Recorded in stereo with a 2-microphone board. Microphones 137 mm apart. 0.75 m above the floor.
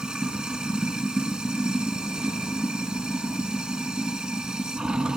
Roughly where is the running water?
Centre.